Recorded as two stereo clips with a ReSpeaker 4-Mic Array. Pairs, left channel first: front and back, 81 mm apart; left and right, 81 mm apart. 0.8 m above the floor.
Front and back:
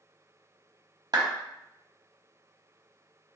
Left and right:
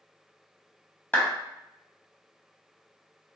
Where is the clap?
150° left, 1.0 m.